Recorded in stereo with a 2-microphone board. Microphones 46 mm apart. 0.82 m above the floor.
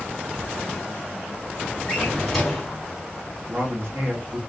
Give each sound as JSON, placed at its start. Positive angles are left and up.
{"t": 1.9, "sound": "a drawer", "side_deg": 0, "distance_m": 1.8}
{"t": 3.5, "sound": "a man speaking", "side_deg": -60, "distance_m": 1.0}